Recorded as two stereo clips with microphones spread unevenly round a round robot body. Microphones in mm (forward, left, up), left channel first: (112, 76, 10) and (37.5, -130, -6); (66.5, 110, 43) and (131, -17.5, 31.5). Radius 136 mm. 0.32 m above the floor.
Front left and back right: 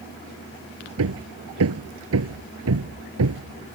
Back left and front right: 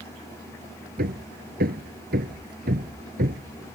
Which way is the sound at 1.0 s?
100° right.